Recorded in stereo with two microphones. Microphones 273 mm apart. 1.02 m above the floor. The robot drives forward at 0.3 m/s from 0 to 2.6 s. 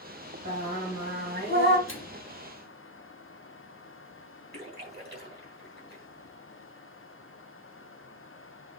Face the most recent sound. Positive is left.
turn(degrees=-40)  # may be behind; listen again after turning